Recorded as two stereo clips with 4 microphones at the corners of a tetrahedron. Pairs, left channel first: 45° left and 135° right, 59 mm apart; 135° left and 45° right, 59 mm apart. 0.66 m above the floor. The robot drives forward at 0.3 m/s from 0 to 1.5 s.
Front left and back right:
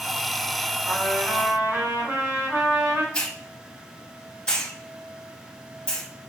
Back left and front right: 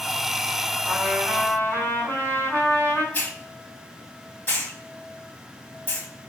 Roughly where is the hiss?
Left.